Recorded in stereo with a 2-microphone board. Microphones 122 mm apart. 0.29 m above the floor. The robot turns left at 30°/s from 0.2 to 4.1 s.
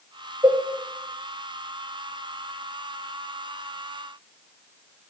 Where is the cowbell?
25° right (ahead or behind), 1.6 m; by 0.6 s 30° right (ahead or behind), 1.6 m.